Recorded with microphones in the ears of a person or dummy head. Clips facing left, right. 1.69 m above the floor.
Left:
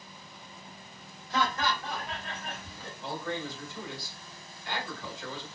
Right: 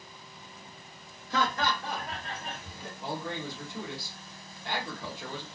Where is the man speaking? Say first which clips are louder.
Even; 55° right (ahead or behind), 1.1 m.